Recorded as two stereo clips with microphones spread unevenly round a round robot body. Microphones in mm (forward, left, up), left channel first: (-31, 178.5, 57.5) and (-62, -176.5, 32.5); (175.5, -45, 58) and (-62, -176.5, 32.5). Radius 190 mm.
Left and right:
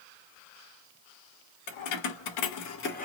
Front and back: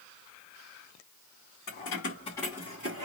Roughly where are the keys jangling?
Left.